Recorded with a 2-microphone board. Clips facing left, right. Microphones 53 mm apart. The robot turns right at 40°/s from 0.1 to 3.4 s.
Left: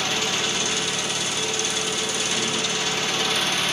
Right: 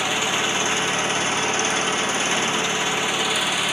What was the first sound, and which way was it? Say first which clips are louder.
An engine running: right 3 dB; 150° right.